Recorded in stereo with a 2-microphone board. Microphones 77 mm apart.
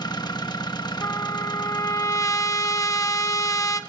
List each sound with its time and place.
0.0 s an engine running: 65° left (ahead or behind), 1.2 m
1.0 s a trumpet: 45° left (ahead or behind), 1.1 m